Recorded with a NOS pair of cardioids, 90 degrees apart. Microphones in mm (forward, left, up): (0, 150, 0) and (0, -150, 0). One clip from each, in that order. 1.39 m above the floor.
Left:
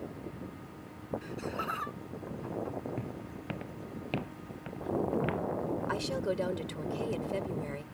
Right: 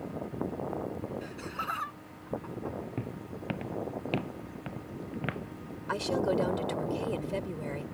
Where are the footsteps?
15° right.